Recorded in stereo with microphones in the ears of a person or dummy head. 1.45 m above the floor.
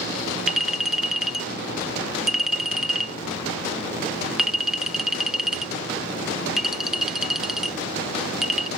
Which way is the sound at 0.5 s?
5° right (ahead or behind).